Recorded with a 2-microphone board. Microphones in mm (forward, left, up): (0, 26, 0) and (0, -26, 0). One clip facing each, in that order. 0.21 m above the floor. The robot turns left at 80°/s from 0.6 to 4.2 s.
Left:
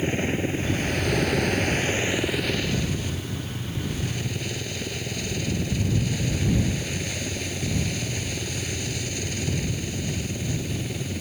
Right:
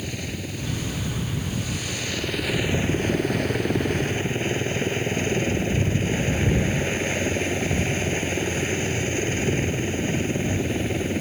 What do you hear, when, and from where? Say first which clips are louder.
0.0 s a helicopter: left 7 dB; 145° left; by 11.2 s 140° right